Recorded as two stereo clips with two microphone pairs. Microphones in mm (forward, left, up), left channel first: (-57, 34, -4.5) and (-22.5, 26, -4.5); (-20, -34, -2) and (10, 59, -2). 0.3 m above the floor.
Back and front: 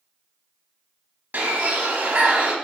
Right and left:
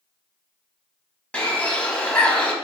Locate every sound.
1.3 s a bird: 35° right, 0.7 m